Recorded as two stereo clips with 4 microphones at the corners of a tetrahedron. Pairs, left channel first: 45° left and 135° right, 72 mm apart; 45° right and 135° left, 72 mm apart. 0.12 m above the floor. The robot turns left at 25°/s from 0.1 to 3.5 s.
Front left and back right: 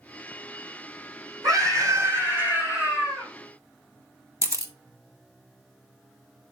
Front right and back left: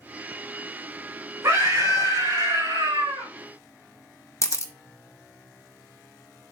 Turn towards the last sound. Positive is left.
turn(degrees=-90)